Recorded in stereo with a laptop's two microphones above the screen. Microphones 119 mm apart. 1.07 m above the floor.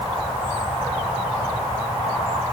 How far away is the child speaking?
No child speaking in this recording.